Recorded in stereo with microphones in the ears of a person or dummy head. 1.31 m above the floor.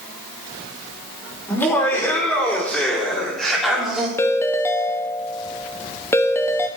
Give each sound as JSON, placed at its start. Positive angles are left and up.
{"t": 1.5, "sound": "laughter", "side_deg": 15, "distance_m": 5.0}
{"t": 4.2, "sound": "a ringtone", "side_deg": 15, "distance_m": 1.0}